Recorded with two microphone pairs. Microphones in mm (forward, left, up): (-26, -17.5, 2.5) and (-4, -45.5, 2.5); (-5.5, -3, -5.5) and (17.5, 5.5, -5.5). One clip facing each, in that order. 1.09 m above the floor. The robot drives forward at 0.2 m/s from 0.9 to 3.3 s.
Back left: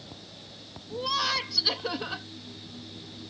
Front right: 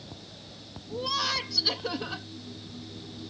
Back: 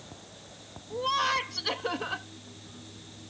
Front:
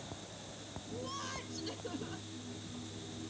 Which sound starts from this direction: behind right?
Laughter, at 0.9 s.